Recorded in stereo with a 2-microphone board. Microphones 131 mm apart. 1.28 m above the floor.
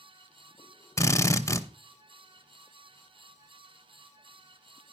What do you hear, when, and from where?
1.0 s a drill: 20° left (ahead or behind), 0.7 m